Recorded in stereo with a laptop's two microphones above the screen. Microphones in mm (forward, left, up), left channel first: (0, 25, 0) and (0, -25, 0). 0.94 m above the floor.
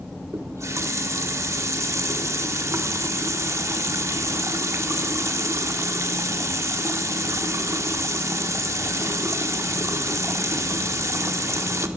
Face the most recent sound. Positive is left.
turn(degrees=-75)  # may be behind; listen again after turning